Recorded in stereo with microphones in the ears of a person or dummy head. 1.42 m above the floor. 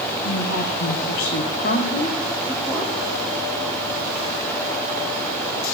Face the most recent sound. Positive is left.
turn(degrees=-5)  # may be behind; listen again after turning